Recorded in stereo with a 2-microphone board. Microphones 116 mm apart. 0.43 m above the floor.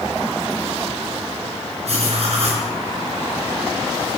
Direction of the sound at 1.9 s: 60° right (ahead or behind).